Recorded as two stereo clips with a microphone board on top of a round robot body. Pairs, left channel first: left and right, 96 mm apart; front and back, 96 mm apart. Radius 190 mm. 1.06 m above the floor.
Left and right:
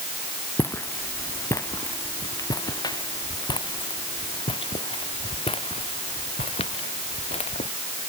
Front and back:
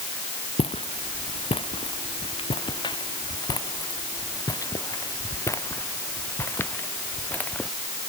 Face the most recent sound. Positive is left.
turn(degrees=75)